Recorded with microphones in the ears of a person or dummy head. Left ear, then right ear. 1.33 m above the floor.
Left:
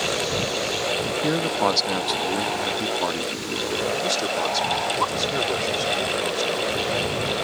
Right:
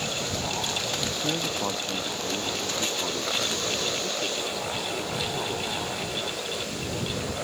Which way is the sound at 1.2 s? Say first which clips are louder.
Left 6 dB; 80° left.